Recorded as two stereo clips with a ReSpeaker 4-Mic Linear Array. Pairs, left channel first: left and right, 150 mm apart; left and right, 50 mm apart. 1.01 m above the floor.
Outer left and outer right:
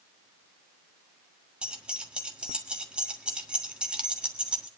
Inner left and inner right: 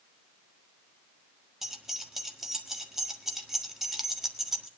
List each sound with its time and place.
1.6 s keys jangling: 5° right (ahead or behind), 1.5 m